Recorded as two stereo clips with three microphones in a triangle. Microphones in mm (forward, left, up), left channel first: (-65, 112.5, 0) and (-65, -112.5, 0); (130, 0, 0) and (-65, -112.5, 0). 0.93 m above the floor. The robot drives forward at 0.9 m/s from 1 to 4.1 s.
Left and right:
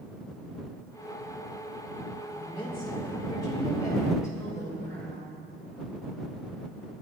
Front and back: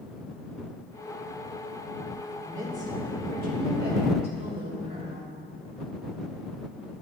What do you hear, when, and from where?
2.3 s a woman speaking: 155° left, 2.5 m; by 5.3 s 165° left, 4 m